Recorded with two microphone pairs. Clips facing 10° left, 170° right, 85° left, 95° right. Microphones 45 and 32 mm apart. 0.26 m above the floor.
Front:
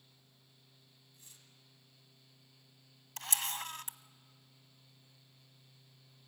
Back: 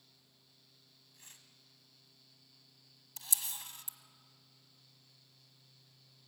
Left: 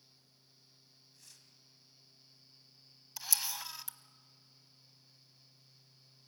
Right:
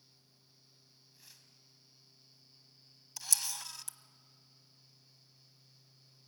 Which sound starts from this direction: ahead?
A camera shutter, at 3.2 s.